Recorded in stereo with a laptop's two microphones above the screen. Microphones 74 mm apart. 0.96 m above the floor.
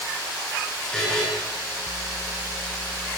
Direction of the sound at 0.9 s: 10° left (ahead or behind).